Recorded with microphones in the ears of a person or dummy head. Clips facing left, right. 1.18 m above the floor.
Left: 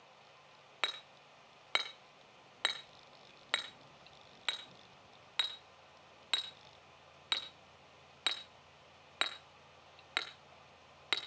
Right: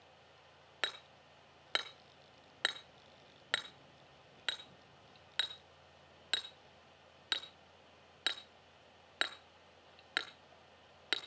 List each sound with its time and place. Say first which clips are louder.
0.8 s hammering: left 1 dB; 5° right (ahead or behind), 0.9 m